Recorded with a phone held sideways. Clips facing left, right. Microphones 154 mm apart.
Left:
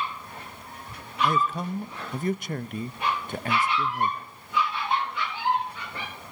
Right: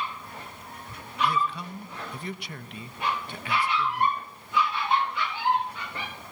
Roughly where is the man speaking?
Left.